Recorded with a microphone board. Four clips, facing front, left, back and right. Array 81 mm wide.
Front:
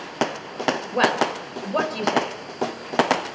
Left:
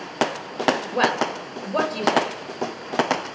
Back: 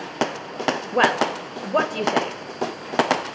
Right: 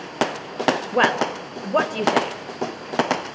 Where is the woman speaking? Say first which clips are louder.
Right 2 dB, back 2 dB; 130° right, 1.1 m.